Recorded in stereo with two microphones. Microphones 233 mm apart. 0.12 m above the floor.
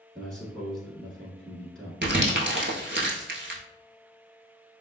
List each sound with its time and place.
0.1 s a man speaking: centre (ahead or behind), 1.2 m
2.0 s crumpling: 50° right (ahead or behind), 0.8 m